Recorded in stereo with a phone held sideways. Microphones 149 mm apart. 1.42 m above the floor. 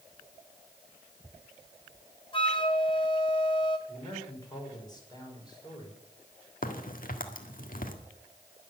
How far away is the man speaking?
About 6 m.